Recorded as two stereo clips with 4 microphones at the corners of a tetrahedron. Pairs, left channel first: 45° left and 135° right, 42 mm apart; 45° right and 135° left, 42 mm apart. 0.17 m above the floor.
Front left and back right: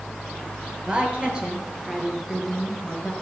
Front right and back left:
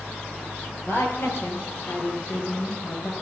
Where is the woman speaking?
75° right, 4 m; by 3.1 s 45° right, 3.5 m.